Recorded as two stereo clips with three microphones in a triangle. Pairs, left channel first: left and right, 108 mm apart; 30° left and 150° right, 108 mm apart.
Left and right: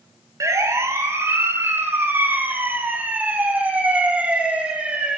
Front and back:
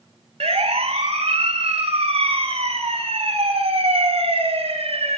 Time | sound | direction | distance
0.4 | a siren | 150° right | 3 m